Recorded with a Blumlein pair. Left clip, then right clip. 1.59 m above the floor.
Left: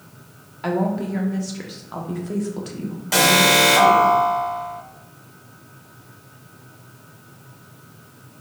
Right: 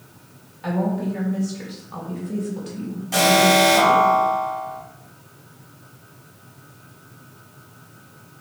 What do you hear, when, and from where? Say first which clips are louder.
0.6 s a woman speaking: left 2 dB; 70° left, 1.2 m
3.1 s an alarm: left 1 dB; 55° left, 1.6 m